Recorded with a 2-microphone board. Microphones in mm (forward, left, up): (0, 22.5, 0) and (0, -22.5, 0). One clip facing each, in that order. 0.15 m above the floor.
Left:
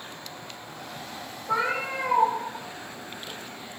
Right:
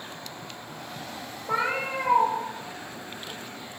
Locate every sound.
1.5 s a cat meowing: 25° right (ahead or behind), 0.9 m